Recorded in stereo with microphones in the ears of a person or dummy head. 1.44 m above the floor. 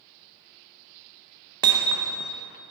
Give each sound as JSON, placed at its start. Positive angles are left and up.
{"t": 1.6, "sound": "hammering", "side_deg": -25, "distance_m": 1.0}